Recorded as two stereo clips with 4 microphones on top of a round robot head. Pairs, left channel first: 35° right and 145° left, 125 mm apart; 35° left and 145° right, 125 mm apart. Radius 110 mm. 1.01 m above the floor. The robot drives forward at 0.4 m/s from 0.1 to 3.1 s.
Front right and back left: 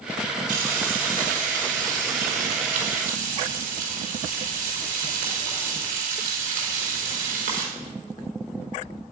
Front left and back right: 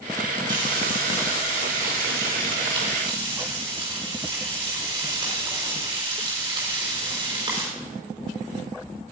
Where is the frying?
155° left, 3.5 m; by 7.7 s 160° left, 4.5 m.